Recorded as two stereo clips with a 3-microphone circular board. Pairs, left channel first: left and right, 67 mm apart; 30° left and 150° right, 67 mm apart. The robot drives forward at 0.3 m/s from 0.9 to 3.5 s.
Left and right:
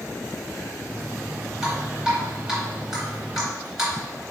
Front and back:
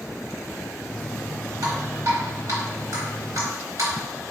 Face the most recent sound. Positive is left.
turn(degrees=-175)